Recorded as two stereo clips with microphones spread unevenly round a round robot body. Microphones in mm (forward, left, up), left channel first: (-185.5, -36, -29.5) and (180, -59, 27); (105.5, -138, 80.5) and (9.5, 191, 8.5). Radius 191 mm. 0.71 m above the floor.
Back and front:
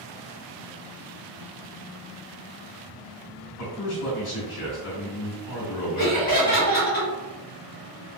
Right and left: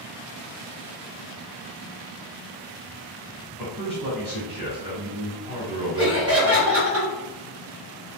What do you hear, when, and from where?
3.6 s a man speaking: straight behind, 1.4 m
6.0 s laughter: 125° left, 1.6 m